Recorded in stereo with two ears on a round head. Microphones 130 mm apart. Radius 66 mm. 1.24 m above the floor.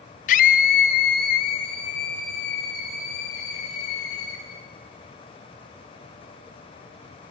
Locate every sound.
0.3 s a scream: 60° left (ahead or behind), 0.8 m; by 4.4 s 85° left, 4.5 m